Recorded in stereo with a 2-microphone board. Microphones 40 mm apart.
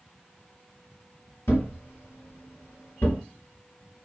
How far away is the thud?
About 0.9 m.